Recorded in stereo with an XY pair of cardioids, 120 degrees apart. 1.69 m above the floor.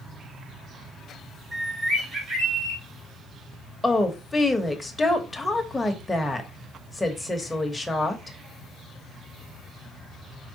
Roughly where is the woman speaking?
Ahead.